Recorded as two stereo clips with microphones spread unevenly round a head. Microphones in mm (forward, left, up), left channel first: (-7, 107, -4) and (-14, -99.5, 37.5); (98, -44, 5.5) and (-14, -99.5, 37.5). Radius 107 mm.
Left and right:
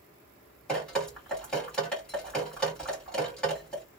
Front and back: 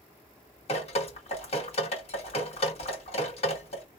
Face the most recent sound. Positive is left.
turn(degrees=-5)